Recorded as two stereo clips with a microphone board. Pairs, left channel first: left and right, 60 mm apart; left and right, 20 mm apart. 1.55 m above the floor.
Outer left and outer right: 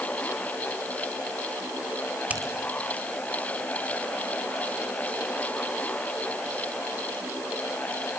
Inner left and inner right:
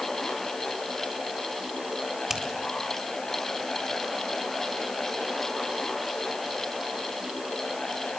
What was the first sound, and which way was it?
A finger snap, 25° right (ahead or behind).